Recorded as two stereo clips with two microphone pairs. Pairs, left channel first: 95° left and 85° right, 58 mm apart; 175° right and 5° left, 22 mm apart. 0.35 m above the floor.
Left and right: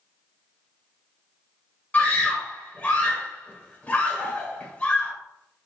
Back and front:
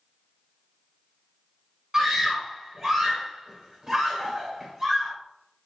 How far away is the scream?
About 1.2 m.